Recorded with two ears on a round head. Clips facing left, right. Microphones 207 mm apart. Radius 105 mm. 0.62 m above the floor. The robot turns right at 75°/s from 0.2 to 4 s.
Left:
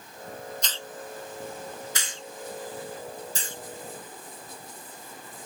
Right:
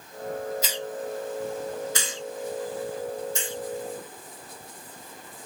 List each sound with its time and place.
0.6 s a hiss: 5° right (ahead or behind); by 3.6 s 45° left (ahead or behind)